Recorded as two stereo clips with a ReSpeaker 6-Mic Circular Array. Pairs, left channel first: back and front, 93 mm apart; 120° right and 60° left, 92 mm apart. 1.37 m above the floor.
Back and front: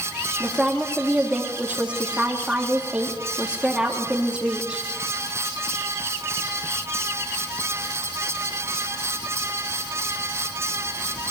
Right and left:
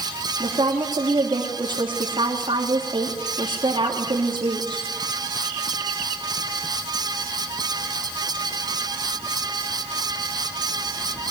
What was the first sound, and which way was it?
A woman speaking, 80° left.